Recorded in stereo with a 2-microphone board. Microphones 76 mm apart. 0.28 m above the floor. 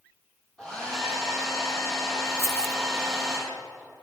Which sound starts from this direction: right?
Keys jangling, at 2.4 s.